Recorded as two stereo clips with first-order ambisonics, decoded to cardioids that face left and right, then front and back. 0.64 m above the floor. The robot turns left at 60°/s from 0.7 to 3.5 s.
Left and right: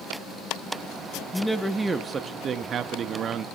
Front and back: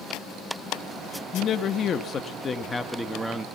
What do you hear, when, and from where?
1.3 s a man speaking: 15° left, 0.5 m; by 3.5 s 110° right, 0.5 m